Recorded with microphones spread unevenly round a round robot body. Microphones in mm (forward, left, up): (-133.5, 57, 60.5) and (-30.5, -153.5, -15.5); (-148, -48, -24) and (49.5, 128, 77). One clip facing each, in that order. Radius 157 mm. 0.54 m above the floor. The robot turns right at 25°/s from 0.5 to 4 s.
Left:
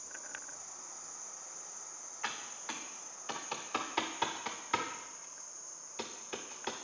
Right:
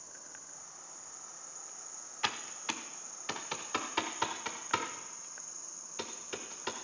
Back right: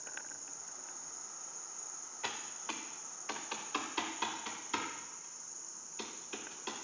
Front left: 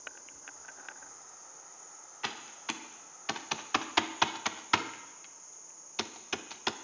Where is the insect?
170° left, 2.5 m; by 6.8 s 105° right, 2.5 m.